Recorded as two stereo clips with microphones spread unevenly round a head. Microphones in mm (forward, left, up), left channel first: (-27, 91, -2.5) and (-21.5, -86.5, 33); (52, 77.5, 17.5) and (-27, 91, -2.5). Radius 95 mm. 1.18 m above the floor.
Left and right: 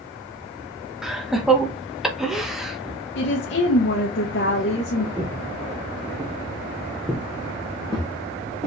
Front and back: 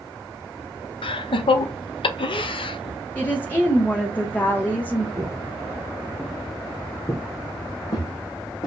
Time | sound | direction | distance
1.0 | laughter | straight ahead | 0.8 m
3.1 | a woman speaking | 65° left | 0.9 m
5.2 | footsteps | 145° right | 1.4 m